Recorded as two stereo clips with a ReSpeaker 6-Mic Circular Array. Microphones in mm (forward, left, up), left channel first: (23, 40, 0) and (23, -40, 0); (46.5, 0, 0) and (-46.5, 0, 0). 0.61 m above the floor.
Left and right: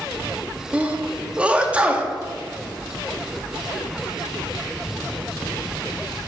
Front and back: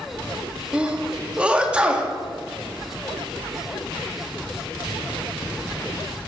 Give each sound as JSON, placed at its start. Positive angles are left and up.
{"t": 0.7, "sound": "a sneeze", "azimuth_deg": -130, "distance_m": 0.8}